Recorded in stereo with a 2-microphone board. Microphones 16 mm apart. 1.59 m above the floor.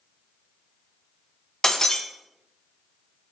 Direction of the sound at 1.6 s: 35° left (ahead or behind).